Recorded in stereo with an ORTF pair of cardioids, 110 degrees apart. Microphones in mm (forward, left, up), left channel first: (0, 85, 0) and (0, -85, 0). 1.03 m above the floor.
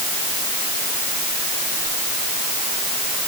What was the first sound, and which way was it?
Only background noise.